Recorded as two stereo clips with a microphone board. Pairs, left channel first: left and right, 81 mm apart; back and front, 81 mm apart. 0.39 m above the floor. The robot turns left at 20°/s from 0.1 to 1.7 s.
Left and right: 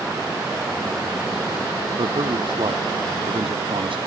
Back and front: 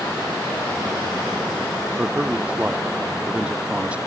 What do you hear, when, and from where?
2.0 s a man speaking: 75° right